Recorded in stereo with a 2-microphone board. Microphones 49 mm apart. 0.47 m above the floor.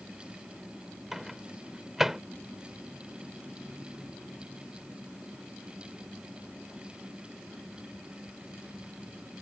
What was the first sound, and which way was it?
A microwave, 10° right (ahead or behind).